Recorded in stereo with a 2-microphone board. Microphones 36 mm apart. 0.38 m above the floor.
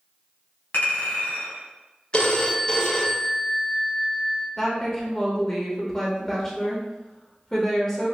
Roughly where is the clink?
Left.